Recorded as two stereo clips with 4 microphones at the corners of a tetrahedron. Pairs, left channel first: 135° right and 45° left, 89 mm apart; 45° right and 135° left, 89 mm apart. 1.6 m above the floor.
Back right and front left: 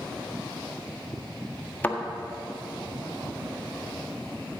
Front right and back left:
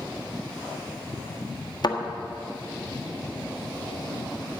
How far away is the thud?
About 1.5 m.